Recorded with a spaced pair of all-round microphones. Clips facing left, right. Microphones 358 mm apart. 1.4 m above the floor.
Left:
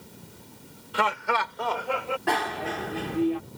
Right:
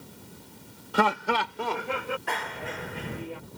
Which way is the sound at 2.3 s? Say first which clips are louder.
Left 7 dB; 80° left.